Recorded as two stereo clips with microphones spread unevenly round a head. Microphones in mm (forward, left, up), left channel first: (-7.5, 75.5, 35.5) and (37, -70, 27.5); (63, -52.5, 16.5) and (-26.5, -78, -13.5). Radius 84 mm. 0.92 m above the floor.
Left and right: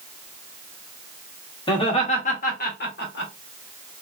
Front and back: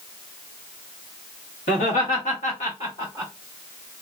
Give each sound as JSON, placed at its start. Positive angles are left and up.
{"t": 1.7, "sound": "laughter", "azimuth_deg": 45, "distance_m": 1.3}